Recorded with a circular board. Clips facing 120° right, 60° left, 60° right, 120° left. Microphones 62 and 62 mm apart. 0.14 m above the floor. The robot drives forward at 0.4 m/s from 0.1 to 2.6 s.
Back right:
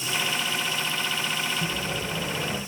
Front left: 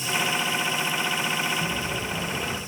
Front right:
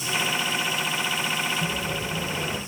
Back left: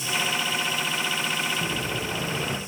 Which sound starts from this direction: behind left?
An explosion, at 1.6 s.